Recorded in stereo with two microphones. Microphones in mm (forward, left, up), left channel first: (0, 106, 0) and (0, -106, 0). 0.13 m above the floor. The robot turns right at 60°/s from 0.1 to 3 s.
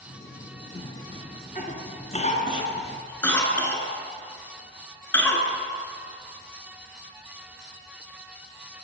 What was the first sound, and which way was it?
A cough, 20° left (ahead or behind).